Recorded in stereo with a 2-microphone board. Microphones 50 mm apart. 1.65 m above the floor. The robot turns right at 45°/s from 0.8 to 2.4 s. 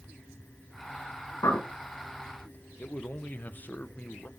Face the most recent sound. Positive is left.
turn(degrees=35)  # may be behind; listen again after turning